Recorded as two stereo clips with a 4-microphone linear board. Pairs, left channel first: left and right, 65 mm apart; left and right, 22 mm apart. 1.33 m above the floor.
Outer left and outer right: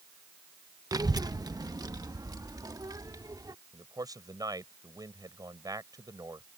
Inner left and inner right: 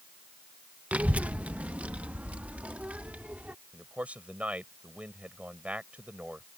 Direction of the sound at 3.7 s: 75° right (ahead or behind).